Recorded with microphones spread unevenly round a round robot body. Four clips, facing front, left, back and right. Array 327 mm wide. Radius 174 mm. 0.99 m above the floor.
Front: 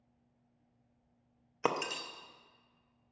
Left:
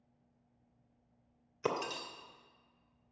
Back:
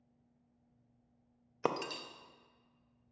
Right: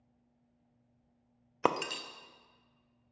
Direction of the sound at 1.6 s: 60° right.